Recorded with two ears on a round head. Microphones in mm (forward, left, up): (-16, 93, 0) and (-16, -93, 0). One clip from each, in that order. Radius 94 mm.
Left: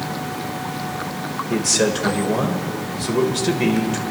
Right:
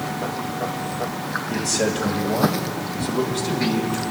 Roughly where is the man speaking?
Left.